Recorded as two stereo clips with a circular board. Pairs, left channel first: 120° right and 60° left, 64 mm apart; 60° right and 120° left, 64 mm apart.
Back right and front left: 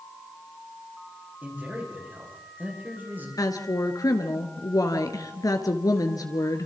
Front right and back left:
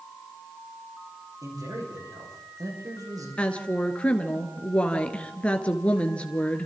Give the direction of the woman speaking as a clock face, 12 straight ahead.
4 o'clock.